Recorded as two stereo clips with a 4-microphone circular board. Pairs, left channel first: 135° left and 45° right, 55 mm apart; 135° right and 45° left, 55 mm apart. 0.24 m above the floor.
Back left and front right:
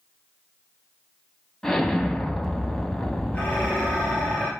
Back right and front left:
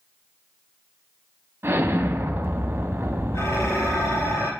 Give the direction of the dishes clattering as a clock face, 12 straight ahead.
5 o'clock.